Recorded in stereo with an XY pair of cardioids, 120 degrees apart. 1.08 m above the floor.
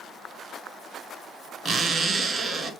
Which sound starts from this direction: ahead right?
A zipper, at 1.6 s.